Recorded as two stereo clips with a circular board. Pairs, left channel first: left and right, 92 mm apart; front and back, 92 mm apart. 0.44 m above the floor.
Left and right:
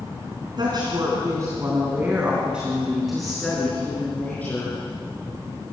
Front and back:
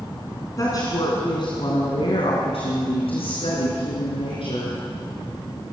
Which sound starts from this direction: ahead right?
A woman speaking, at 0.6 s.